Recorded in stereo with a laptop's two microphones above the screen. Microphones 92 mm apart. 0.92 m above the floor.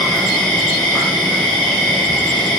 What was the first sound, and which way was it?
An insect, 5° left (ahead or behind).